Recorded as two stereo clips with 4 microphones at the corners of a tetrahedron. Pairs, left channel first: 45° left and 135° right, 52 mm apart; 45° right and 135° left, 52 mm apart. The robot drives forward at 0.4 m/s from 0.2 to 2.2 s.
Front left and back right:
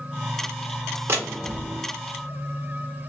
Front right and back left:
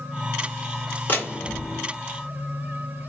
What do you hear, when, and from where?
1.1 s a door slam: 95° right, 1.4 m; by 1.8 s 105° right, 1.4 m